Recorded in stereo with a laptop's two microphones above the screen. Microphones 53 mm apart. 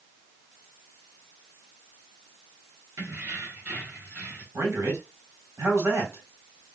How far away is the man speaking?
About 3 m.